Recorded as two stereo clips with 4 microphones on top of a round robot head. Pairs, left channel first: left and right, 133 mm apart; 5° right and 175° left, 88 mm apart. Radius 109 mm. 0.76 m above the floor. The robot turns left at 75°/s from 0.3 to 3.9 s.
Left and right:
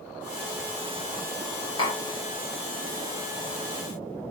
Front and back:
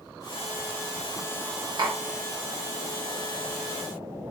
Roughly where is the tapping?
Behind left.